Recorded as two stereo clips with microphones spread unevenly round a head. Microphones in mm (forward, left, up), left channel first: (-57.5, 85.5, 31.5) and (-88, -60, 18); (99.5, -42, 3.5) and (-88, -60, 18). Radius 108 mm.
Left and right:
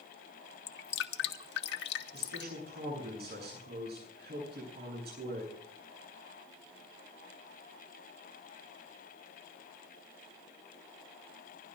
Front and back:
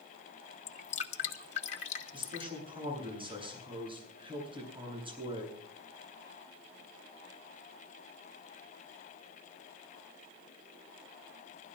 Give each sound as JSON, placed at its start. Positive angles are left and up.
{"t": 0.7, "sound": "dripping", "azimuth_deg": 70, "distance_m": 1.2}
{"t": 2.1, "sound": "a man speaking", "azimuth_deg": -110, "distance_m": 9.0}